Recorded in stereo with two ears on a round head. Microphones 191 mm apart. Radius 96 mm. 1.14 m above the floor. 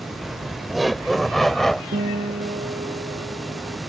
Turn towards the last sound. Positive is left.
turn(degrees=-30)  # may be behind; listen again after turning